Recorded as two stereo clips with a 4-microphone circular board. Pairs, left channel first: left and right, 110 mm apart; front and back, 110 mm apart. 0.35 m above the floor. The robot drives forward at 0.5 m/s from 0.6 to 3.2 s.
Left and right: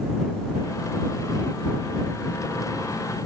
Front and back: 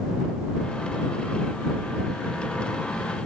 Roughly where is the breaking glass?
No breaking glass in this recording.